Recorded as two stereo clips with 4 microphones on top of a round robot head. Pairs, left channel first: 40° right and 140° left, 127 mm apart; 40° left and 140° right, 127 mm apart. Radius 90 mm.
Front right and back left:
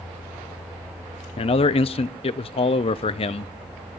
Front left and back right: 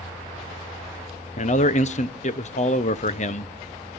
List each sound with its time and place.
1.4 s a man speaking: 5° left, 0.7 m